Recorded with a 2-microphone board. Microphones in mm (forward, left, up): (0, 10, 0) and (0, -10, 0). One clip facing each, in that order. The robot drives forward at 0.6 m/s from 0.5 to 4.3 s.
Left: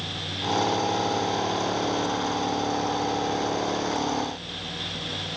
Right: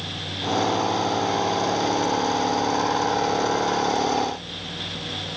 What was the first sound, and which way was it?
Only background noise.